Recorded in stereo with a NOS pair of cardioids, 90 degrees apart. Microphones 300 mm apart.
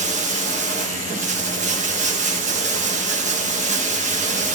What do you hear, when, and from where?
0.0 s running water: 25° right, 1.1 m